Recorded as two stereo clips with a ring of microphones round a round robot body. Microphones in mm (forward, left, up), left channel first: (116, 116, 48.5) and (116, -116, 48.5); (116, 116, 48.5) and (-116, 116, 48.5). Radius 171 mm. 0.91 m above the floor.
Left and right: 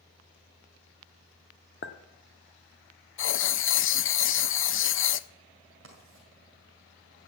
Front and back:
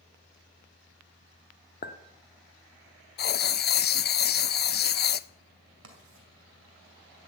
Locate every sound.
1.8 s a clink: 50° left, 1.2 m
3.2 s writing: 50° left, 0.5 m
5.8 s writing: 145° right, 2.0 m